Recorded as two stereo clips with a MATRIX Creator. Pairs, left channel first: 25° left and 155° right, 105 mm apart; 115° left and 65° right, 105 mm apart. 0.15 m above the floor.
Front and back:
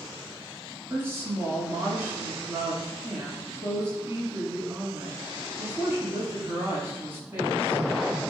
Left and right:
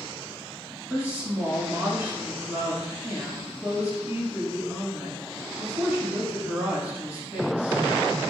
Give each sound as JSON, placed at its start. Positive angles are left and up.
{"t": 0.9, "sound": "a woman speaking", "azimuth_deg": -125, "distance_m": 1.2}